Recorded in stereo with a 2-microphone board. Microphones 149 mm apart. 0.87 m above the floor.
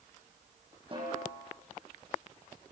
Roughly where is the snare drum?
Right.